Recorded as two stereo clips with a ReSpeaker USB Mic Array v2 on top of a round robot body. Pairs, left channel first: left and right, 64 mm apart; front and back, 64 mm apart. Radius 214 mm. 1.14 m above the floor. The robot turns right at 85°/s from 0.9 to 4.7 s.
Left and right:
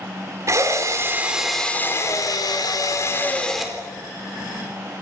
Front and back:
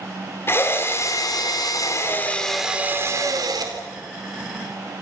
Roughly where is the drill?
Ahead right.